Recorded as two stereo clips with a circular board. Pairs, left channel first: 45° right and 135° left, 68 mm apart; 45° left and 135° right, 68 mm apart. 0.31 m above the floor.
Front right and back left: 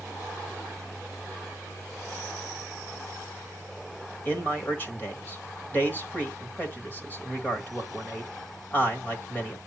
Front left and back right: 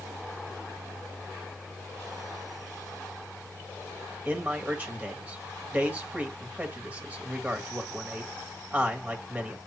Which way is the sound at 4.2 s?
85° right.